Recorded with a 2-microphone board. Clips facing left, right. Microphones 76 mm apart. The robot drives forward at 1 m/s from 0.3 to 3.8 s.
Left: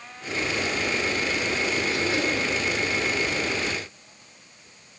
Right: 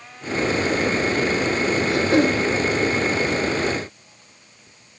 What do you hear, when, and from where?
1.9 s throat clearing: 50° right (ahead or behind), 5 m; by 2.4 s 55° right (ahead or behind), 4.5 m